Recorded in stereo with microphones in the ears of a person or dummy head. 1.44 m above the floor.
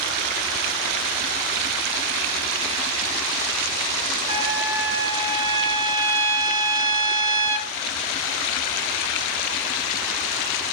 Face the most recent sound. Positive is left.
turn(degrees=-15)  # may be behind; listen again after turning